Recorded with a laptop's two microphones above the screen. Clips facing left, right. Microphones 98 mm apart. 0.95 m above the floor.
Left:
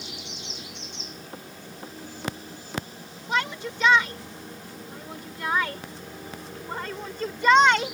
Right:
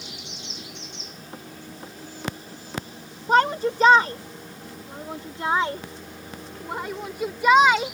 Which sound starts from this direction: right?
A shout, at 3.3 s.